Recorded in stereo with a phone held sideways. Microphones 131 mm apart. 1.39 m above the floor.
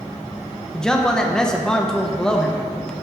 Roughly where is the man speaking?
Centre.